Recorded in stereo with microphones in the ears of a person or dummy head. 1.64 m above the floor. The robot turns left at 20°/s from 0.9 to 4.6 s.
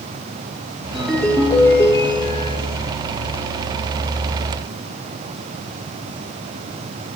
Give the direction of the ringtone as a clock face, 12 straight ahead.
6 o'clock.